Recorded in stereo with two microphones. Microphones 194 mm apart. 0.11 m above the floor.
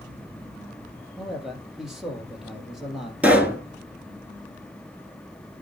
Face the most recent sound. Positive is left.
turn(degrees=-10)  # may be behind; listen again after turning